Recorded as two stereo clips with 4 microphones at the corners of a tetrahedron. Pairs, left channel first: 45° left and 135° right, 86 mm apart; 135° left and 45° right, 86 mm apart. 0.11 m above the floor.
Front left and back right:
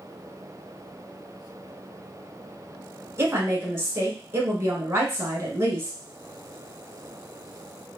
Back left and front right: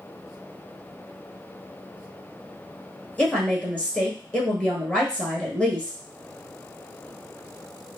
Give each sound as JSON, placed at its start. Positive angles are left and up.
{"t": 3.2, "sound": "a woman speaking", "azimuth_deg": -160, "distance_m": 1.2}